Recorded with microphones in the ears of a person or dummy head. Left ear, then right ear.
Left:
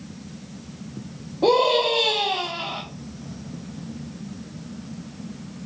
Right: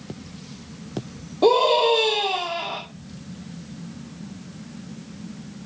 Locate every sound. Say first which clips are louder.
1.4 s a scream: right 1 dB; 85° right, 3 m